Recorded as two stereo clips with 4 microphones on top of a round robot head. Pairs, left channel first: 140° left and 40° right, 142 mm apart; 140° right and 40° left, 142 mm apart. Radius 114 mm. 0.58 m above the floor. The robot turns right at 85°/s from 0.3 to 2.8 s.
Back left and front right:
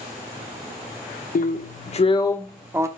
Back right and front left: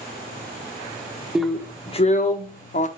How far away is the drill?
About 1.0 m.